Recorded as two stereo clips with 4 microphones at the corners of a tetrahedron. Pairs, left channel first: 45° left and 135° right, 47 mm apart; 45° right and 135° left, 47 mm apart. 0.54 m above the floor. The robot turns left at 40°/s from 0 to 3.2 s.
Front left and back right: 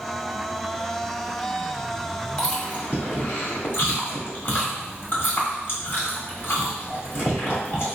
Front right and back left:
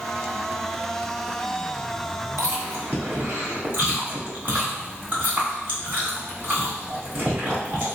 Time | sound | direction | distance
2.4 | chewing | 115° left | 1.5 m